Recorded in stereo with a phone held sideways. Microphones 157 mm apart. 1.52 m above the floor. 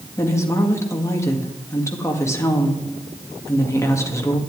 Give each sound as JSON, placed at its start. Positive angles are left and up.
{"t": 0.2, "sound": "a woman speaking", "side_deg": 20, "distance_m": 2.0}